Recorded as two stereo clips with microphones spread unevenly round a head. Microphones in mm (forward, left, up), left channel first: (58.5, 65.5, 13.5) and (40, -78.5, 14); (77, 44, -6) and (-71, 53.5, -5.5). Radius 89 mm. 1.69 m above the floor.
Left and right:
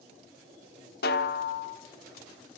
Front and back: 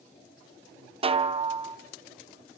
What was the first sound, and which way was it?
A snare drum, 125° left.